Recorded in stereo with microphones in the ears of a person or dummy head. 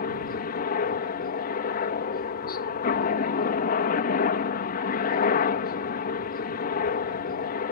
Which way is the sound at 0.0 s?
35° left (ahead or behind).